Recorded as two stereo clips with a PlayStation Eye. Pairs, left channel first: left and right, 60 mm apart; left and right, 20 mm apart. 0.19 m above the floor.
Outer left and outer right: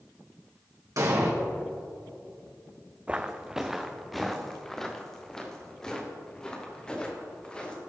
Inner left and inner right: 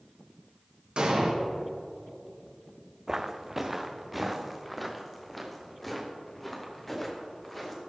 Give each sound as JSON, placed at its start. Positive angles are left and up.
{"t": 1.0, "sound": "an explosion", "side_deg": -60, "distance_m": 3.5}
{"t": 3.1, "sound": "footsteps", "side_deg": -20, "distance_m": 1.0}